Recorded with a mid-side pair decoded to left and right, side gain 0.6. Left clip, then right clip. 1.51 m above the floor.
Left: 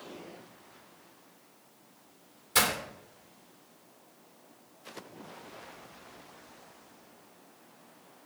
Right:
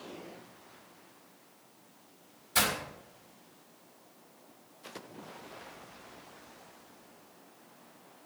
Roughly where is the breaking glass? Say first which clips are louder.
Left 2 dB; ahead left.